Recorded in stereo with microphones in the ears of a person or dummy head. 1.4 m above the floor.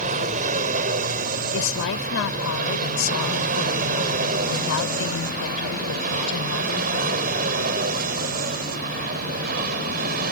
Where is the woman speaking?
75° left (ahead or behind).